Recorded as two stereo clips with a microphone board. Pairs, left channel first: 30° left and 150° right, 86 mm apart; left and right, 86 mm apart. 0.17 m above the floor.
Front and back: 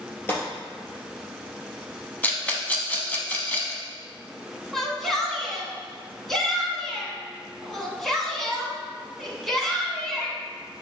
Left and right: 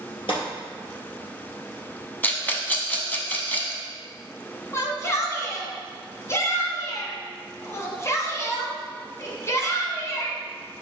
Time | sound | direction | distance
0.3 | a gunshot | 95° left | 3 m
2.2 | a rattle | 65° left | 1.0 m
4.7 | a shout | 115° left | 1.7 m